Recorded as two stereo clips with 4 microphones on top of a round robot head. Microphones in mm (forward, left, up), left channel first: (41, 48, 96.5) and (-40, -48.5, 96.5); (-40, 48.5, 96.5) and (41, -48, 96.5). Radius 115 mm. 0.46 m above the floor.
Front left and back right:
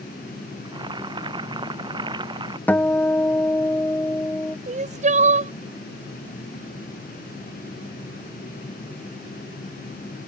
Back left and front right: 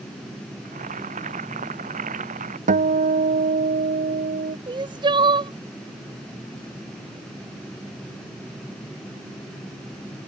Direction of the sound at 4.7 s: 105° right.